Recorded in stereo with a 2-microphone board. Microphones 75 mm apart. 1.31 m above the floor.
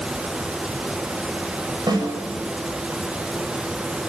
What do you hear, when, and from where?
1.9 s a snare drum: 60° right (ahead or behind), 7 m